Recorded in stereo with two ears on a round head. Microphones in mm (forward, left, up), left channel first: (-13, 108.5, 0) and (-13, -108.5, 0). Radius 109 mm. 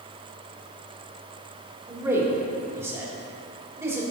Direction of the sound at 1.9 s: 10° right (ahead or behind).